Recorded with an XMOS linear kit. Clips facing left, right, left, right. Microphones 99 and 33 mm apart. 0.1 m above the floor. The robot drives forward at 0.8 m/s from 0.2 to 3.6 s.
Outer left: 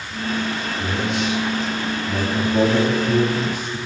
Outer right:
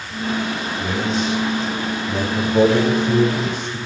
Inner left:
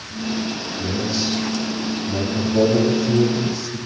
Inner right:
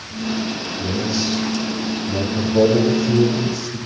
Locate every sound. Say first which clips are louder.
0.8 s a man speaking: outer right 2 dB, inner right 1 dB; 15° left (ahead or behind), 4 m; by 3.8 s 10° left (ahead or behind), 6 m